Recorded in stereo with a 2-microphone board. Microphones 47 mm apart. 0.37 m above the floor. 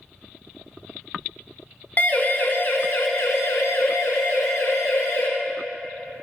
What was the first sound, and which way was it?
A siren, 40° left (ahead or behind).